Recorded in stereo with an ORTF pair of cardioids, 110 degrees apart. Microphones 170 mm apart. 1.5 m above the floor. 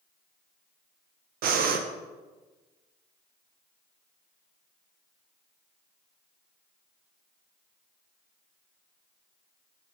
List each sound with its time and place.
1.4 s breathing: 65° right, 0.8 m